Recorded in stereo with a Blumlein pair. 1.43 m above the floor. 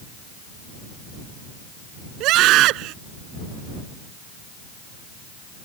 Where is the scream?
40° right.